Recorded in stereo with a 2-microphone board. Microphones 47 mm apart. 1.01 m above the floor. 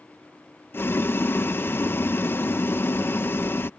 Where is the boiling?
50° left (ahead or behind).